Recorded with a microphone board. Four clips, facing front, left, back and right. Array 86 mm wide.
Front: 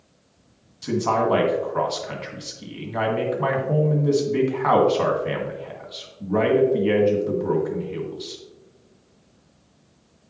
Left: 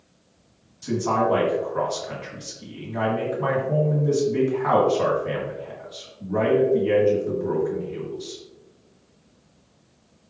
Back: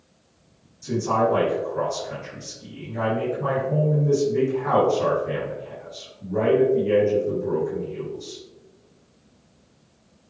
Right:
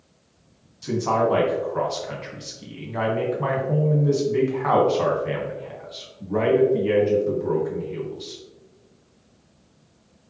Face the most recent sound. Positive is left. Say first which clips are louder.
# right 1 dB, even
turn(degrees=-15)